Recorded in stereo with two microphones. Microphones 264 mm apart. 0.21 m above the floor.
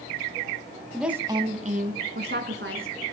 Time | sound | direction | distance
0.9 | a woman speaking | centre (ahead or behind) | 1.1 m